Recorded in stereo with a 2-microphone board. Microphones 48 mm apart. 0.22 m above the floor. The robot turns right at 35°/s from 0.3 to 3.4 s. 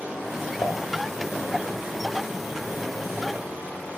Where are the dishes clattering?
75° left (ahead or behind), 3 m; by 0.8 s 70° left (ahead or behind), 3 m.